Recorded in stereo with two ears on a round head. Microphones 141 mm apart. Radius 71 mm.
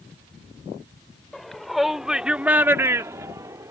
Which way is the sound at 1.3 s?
5° left (ahead or behind).